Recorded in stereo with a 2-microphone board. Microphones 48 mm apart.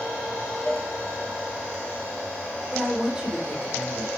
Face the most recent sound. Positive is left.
turn(degrees=-15)  # may be behind; listen again after turning